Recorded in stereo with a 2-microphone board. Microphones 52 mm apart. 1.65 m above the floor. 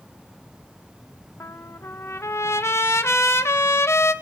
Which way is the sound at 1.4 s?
60° left (ahead or behind).